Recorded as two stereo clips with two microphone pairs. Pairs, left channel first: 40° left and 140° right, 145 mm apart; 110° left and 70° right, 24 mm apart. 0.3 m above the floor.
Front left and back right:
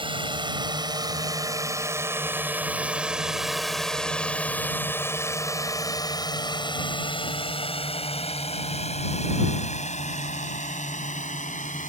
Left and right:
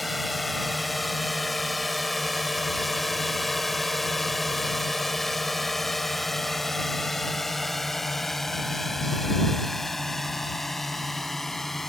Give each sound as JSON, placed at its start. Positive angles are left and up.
{"t": 0.0, "sound": "a drone", "azimuth_deg": -155}